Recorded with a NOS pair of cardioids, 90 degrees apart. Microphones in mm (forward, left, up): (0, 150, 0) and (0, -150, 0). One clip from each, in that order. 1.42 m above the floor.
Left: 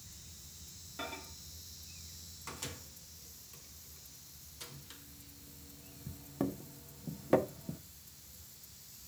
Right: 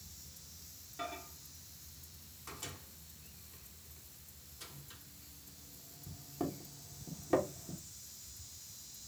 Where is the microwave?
25° left, 1.0 m.